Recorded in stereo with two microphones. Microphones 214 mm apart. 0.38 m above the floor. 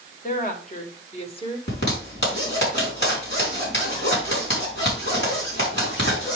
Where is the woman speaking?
40° left (ahead or behind), 1.8 m; by 1.6 s 25° left (ahead or behind), 1.4 m.